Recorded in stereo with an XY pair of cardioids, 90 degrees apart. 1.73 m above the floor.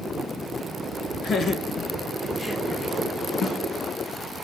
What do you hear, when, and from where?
1.2 s laughter: 60° left, 1.7 m; by 2.9 s 15° left, 1.4 m
3.4 s a snare drum: 65° left, 1.8 m